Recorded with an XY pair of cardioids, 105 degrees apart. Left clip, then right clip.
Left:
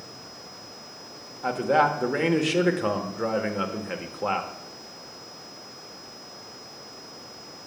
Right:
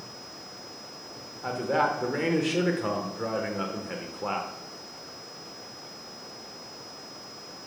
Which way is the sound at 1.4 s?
30° left.